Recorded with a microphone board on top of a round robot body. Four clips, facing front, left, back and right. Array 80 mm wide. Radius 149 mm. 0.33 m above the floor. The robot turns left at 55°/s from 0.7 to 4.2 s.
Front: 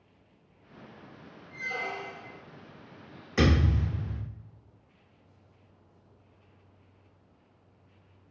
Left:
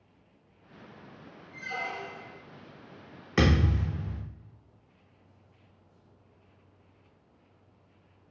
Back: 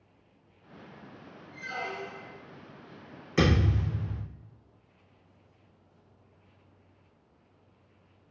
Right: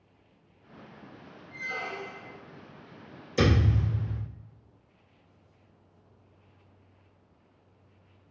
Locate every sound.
1.5 s a squeak: 35° right, 0.6 m; by 2.4 s 80° right, 0.6 m
3.4 s a thud: 95° left, 0.9 m; by 4.2 s 50° left, 0.9 m